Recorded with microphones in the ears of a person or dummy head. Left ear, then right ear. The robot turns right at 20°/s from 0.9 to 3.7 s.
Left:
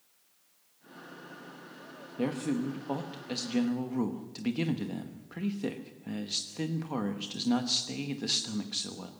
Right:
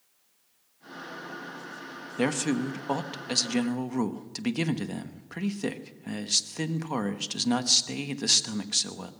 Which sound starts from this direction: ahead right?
A man speaking, at 2.2 s.